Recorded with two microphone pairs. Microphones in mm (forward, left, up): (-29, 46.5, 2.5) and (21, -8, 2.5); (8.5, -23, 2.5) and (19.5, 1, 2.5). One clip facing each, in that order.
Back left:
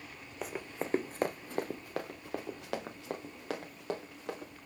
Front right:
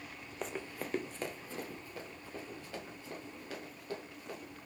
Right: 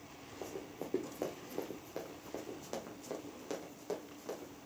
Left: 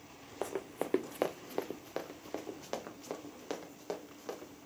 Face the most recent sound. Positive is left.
turn(degrees=135)